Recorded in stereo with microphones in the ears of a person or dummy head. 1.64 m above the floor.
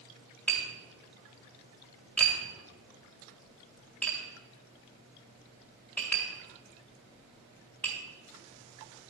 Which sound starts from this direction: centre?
Tapping, at 0.5 s.